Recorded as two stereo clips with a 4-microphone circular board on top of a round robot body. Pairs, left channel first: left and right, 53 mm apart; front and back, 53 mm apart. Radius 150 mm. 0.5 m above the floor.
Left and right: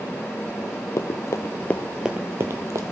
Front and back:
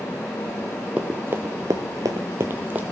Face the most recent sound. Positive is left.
turn(degrees=-120)